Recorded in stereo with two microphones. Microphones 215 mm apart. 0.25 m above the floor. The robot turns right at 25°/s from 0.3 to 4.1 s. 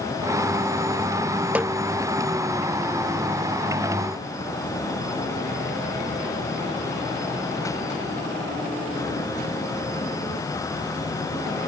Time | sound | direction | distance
1.6 | a snare drum | 5° right (ahead or behind) | ?